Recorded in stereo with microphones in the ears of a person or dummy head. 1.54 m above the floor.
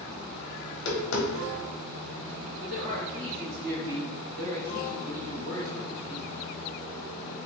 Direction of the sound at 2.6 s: 70° right (ahead or behind).